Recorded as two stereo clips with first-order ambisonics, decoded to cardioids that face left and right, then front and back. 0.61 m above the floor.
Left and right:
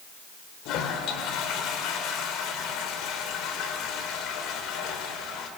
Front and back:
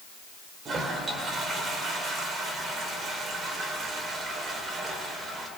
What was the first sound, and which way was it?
A toilet flushing, 120° left.